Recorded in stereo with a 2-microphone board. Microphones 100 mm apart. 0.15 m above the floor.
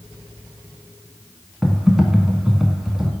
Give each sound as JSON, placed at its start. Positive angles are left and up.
{"t": 1.6, "sound": "typing on a keyboard", "side_deg": -5, "distance_m": 0.6}